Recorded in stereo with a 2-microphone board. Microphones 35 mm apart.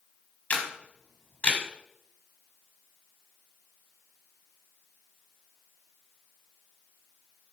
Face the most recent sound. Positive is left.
turn(degrees=40)  # may be behind; listen again after turning